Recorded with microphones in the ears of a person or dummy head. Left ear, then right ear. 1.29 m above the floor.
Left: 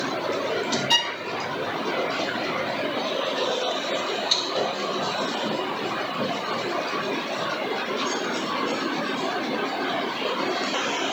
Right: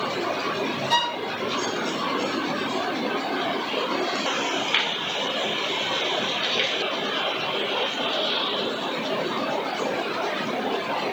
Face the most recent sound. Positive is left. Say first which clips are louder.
# even
turn(degrees=45)  # may be behind; listen again after turning